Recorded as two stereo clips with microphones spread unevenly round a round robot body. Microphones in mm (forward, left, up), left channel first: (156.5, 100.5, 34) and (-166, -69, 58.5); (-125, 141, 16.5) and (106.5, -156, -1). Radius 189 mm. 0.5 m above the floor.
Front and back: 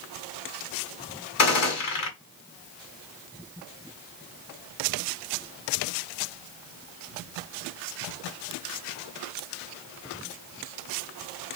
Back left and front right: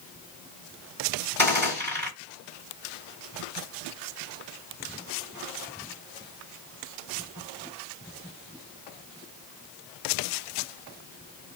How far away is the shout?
I don't hear a shout.